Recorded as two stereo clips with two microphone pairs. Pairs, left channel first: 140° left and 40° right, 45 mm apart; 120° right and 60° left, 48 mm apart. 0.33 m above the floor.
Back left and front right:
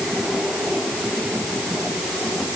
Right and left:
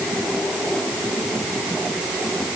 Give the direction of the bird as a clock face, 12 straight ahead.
No bird in this recording.